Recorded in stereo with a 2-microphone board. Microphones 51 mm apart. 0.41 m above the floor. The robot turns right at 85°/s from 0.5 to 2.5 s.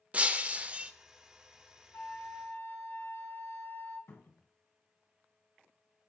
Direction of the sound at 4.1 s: 60° left (ahead or behind).